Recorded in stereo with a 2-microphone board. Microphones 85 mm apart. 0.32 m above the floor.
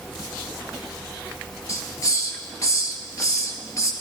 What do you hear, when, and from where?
1.7 s a hiss: 40° left (ahead or behind), 1.8 m